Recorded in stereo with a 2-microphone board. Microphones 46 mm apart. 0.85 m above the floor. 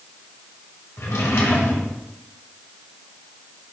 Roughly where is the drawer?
Left.